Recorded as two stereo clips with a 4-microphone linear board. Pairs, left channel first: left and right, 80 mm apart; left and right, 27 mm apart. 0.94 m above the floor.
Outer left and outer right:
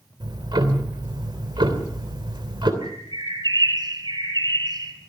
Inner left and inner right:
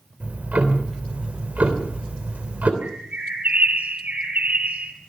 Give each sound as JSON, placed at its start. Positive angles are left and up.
{"t": 0.2, "sound": "ticking", "side_deg": -80, "distance_m": 3.0}
{"t": 2.8, "sound": "a bird", "side_deg": -70, "distance_m": 4.0}